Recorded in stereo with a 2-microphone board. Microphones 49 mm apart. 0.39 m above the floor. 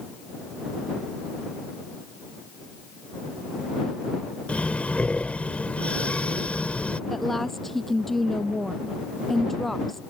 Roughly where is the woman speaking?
Centre.